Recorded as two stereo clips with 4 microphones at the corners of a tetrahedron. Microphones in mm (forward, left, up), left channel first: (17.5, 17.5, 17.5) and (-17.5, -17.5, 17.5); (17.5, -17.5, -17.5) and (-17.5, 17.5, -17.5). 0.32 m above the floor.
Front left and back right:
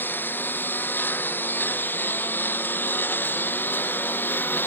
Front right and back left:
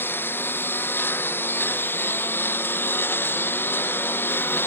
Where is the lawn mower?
Straight ahead.